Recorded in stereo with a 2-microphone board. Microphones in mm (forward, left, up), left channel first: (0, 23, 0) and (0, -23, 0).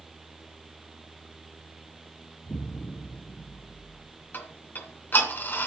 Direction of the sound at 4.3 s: 40° left (ahead or behind).